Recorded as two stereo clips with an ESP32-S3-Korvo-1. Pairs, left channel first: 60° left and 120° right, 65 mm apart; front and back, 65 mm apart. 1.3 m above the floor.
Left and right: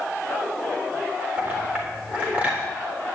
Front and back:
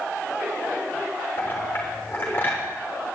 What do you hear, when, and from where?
1.4 s a clink: 55° right, 3.5 m